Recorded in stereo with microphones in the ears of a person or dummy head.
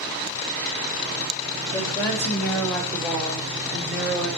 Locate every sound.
1.7 s a woman speaking: 20° left (ahead or behind), 2.5 m; by 4.4 s 5° right (ahead or behind), 4 m